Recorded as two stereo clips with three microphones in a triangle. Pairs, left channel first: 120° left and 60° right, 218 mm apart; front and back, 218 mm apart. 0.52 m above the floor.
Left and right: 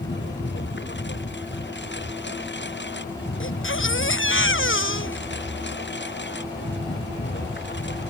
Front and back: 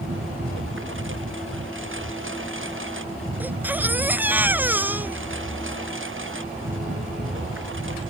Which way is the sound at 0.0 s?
155° left.